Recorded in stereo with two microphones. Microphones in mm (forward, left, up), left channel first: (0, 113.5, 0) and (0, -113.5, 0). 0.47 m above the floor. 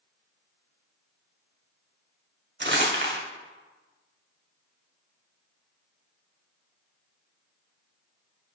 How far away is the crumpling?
About 1.4 m.